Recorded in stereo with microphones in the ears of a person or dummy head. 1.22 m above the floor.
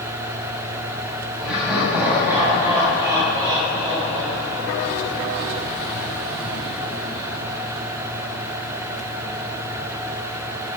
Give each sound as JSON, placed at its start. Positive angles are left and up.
{"t": 1.4, "sound": "laughter", "side_deg": 0, "distance_m": 7.0}